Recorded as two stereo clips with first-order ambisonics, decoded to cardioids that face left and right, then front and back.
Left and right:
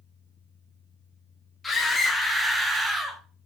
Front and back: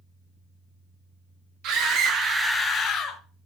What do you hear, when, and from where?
1.6 s a scream: 175° left, 1.4 m; by 3.2 s 20° right, 1.2 m